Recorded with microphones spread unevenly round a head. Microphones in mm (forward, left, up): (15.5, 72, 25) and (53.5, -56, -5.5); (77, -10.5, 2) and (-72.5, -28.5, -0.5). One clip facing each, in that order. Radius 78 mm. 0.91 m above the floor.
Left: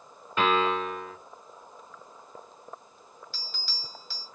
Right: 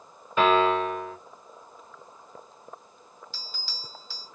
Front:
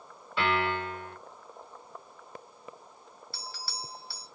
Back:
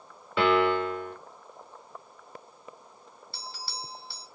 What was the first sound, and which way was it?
A piano, 155° right.